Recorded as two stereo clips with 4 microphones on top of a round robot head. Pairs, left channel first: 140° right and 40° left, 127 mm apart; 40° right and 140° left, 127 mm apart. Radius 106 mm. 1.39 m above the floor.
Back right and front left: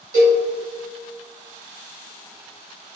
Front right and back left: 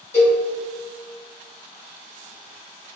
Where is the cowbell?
30° left, 1.0 m.